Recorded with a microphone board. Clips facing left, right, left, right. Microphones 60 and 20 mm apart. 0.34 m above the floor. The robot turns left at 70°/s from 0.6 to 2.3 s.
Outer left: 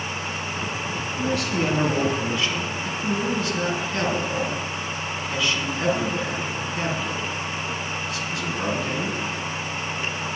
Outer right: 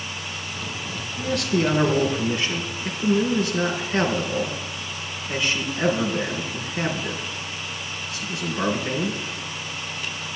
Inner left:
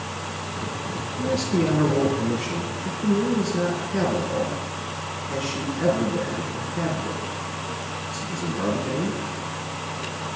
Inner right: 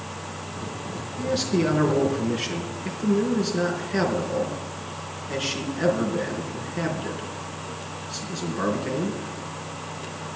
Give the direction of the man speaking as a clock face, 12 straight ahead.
2 o'clock.